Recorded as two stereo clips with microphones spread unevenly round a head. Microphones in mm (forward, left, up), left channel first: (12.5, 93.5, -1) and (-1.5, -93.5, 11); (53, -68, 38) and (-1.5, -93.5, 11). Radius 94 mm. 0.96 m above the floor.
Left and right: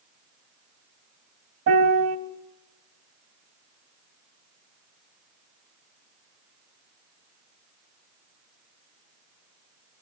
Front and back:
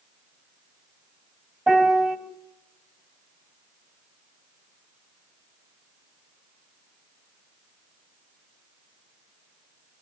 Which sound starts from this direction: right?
A piano, at 1.7 s.